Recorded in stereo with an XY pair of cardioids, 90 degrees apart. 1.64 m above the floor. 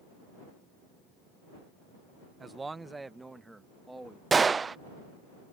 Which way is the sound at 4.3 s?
40° right.